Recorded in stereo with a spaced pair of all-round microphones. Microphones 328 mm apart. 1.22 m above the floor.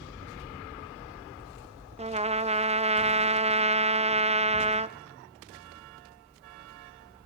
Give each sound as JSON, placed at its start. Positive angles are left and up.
{"t": 2.0, "sound": "a trumpet", "side_deg": -20, "distance_m": 0.5}